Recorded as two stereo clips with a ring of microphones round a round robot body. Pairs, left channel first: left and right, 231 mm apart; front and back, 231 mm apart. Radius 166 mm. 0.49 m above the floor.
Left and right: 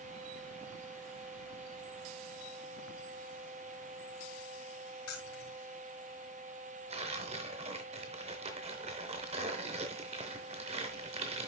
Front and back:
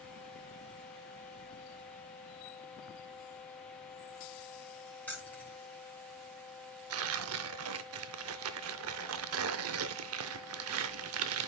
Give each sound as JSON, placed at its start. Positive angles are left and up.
{"t": 5.1, "sound": "keys jangling", "azimuth_deg": 85, "distance_m": 3.5}
{"t": 6.9, "sound": "tearing paper", "azimuth_deg": -160, "distance_m": 0.6}